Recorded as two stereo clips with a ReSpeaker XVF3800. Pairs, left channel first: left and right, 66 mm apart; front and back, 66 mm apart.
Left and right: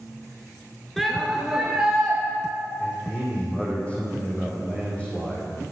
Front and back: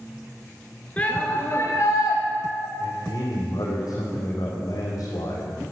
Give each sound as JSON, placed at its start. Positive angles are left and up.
{"t": 1.0, "sound": "a shout", "azimuth_deg": 5, "distance_m": 1.3}
{"t": 2.8, "sound": "a man speaking", "azimuth_deg": 20, "distance_m": 4.5}